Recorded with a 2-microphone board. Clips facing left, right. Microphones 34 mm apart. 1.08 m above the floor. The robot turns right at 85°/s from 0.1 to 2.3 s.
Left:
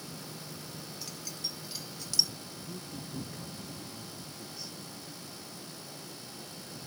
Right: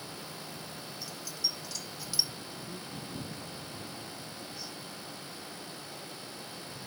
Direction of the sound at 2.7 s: 5° right (ahead or behind).